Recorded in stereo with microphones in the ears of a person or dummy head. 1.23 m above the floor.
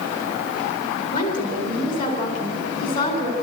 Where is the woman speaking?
50° left (ahead or behind), 3.5 m.